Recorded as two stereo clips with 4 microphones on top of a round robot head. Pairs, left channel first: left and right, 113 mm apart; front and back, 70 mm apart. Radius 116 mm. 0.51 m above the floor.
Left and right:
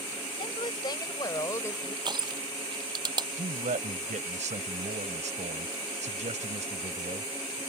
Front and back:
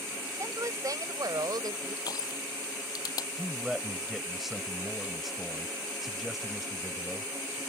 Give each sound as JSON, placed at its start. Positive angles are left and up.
{"t": 0.4, "sound": "a woman speaking", "azimuth_deg": 140}
{"t": 2.0, "sound": "crushing", "azimuth_deg": -40}
{"t": 3.4, "sound": "a man speaking", "azimuth_deg": -95}